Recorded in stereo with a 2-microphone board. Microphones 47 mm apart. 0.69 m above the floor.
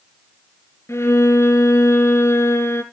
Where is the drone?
No drone in this recording.